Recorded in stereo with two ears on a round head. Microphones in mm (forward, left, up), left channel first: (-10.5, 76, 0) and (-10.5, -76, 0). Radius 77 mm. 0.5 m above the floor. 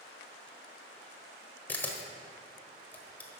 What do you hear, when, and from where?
1.7 s a camera shutter: 15° left (ahead or behind), 1.3 m